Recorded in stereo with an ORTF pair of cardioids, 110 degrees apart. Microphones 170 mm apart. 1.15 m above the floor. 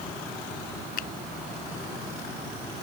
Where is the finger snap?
60° left.